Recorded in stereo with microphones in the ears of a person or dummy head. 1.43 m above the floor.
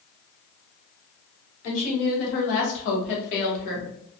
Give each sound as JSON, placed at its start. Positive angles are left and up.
{"t": 1.6, "sound": "a woman speaking", "side_deg": 70, "distance_m": 1.4}